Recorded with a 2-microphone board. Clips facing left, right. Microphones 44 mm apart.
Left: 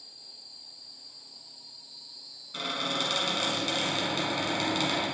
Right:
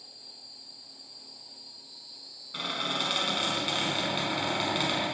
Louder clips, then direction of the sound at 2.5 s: Even; 15° right (ahead or behind).